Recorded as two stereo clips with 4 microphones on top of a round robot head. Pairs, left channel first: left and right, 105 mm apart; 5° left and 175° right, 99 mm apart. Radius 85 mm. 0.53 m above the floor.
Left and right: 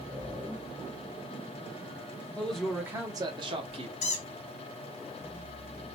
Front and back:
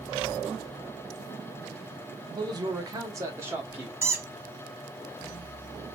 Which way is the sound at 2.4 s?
160° left.